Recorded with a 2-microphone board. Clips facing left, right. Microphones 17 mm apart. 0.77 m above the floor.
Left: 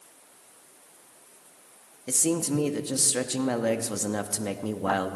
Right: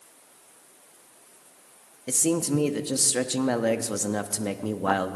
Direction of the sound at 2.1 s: 15° right (ahead or behind).